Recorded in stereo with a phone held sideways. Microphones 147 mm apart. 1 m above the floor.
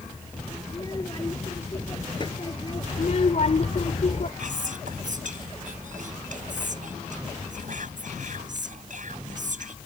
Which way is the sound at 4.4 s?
65° right (ahead or behind).